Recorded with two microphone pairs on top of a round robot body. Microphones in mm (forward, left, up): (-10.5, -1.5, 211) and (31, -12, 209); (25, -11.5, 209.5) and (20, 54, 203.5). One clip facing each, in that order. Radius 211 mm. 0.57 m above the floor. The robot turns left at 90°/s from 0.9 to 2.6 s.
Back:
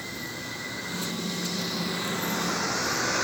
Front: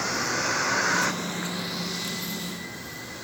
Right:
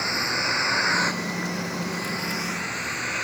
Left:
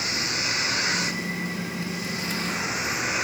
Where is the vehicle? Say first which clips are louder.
Front 9 dB, right 3 dB; 25° right; by 3.2 s straight behind.